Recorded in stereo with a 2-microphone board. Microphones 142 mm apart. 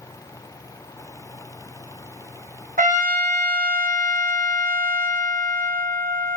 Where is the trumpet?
75° right (ahead or behind), 1.2 m.